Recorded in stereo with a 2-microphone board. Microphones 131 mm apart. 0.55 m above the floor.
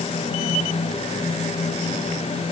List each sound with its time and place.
Only background noise.